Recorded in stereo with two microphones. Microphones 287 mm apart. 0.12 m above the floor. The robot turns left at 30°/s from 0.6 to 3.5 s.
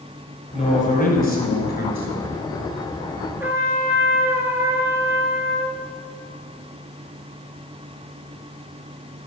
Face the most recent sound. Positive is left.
turn(degrees=-10)  # may be behind; listen again after turning